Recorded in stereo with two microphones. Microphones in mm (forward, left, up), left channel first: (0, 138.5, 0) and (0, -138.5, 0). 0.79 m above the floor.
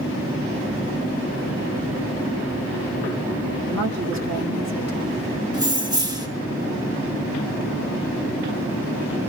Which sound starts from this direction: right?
A woman speaking, at 3.7 s.